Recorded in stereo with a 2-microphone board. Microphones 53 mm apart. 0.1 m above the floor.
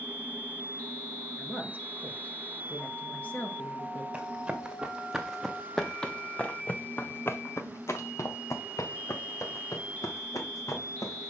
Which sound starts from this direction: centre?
Running footsteps, at 4.1 s.